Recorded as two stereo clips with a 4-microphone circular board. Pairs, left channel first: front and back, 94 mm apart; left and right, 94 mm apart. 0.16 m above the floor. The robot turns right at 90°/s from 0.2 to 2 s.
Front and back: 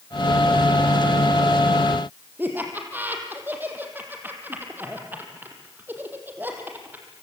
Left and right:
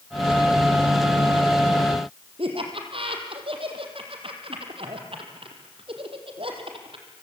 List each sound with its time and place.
2.4 s laughter: 110° right, 5 m